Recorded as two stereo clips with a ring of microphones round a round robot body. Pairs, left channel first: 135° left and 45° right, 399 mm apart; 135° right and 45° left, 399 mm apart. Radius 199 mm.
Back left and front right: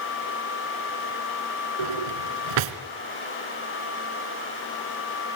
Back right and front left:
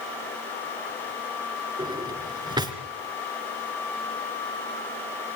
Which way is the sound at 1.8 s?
35° right.